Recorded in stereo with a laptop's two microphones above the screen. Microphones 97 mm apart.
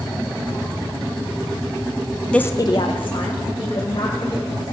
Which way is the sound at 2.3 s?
10° left (ahead or behind).